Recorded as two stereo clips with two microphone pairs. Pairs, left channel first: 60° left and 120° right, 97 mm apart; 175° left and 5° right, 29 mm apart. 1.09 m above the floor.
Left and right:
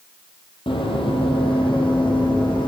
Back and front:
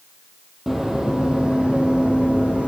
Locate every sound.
0.7 s running footsteps: 70° left, 2.5 m; by 2.7 s 30° left, 4 m